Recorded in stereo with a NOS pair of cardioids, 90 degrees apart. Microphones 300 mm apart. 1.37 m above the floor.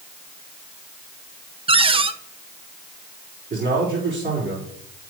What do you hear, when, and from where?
1.7 s a cupboard door: 15° right, 0.7 m
3.5 s a man speaking: 35° right, 4.5 m